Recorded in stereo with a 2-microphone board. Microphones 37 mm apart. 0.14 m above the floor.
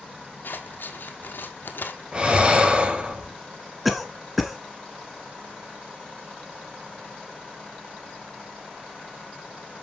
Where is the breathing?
25° right (ahead or behind), 2.5 m.